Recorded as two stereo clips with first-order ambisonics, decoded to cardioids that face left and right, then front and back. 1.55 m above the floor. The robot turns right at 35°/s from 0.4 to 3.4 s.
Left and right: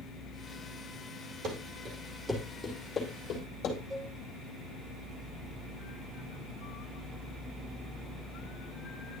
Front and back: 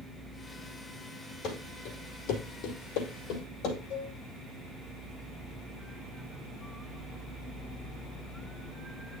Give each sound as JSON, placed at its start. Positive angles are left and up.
{"t": 1.4, "sound": "running footsteps", "azimuth_deg": -50, "distance_m": 4.5}
{"t": 3.9, "sound": "a cowbell", "azimuth_deg": -10, "distance_m": 2.0}